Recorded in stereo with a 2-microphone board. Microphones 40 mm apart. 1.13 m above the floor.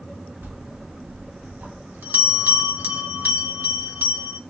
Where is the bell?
55° right (ahead or behind), 1.3 m.